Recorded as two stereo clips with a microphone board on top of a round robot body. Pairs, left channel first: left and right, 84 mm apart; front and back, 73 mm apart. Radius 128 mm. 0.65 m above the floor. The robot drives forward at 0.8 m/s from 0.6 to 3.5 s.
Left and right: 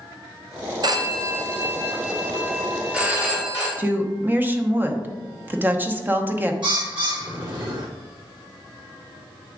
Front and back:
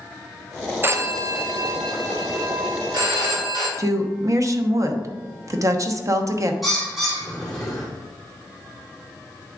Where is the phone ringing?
125° right, 0.8 m; by 3.7 s 165° right, 2.5 m.